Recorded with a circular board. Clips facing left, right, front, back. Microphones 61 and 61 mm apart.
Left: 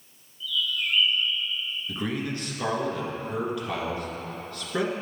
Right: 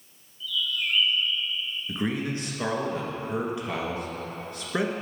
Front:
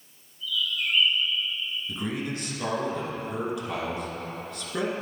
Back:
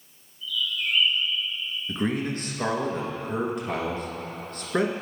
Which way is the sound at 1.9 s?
155° right.